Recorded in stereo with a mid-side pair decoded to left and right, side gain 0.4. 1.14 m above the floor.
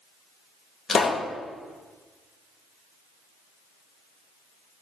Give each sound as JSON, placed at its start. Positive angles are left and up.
{"t": 0.9, "sound": "a pop", "azimuth_deg": 45, "distance_m": 2.0}